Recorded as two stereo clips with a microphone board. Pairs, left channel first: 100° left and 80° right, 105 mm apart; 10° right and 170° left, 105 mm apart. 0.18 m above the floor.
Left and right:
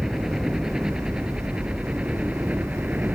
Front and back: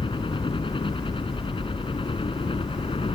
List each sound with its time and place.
0.0 s a helicopter: 5° left; by 3.2 s 5° right